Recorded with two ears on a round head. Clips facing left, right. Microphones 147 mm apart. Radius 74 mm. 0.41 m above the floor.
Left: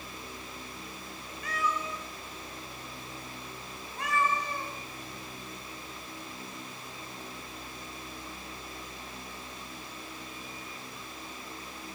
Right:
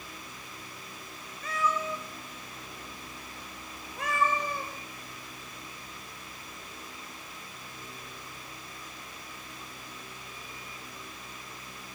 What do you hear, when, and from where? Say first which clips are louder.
1.4 s a cat meowing: right 3 dB; 80° right, 4 m; by 4.7 s 70° right (ahead or behind), 5 m